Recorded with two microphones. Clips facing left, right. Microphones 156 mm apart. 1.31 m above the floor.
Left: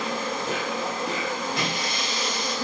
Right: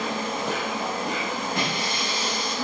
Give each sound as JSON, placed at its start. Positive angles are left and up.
{"t": 0.0, "sound": "an insect", "side_deg": -65, "distance_m": 7.0}
{"t": 1.6, "sound": "breaking glass", "side_deg": -65, "distance_m": 8.0}